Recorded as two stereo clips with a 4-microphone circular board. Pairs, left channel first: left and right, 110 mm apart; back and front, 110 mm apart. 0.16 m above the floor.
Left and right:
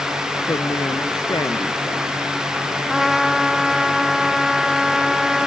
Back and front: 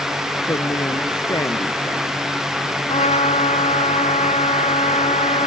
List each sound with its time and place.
0.5 s a woman speaking: 135° left
2.9 s a trumpet: straight behind